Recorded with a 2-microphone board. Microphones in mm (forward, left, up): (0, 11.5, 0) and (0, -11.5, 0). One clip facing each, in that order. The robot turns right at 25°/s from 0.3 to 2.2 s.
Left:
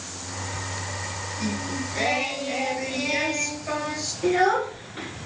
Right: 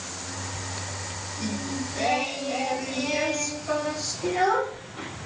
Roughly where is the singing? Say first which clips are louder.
Left 1 dB; left.